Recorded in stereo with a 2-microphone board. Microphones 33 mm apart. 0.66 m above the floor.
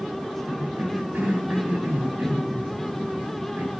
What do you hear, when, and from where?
0.5 s a cough: 60° right (ahead or behind), 5.5 m